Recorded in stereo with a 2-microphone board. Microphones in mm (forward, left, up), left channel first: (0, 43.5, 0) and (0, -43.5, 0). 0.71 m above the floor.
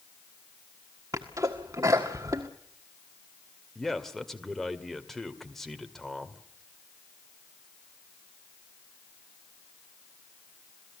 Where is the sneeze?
40° right (ahead or behind), 1.5 m.